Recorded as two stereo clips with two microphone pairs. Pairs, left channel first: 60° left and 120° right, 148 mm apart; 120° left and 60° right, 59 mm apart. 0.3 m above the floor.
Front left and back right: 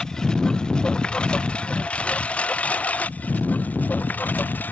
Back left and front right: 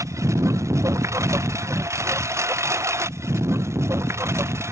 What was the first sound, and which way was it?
A lawn mower, 25° right.